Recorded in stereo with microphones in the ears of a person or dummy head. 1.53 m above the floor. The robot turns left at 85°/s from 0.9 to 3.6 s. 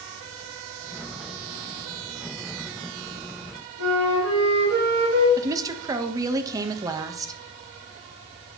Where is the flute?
85° right, 3 m.